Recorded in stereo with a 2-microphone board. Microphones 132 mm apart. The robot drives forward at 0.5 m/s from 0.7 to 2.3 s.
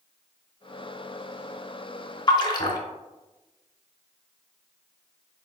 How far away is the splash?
About 0.5 m.